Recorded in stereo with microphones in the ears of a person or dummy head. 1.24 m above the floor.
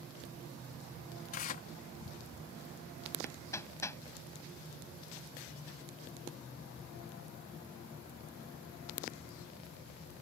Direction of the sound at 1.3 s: 45° left (ahead or behind).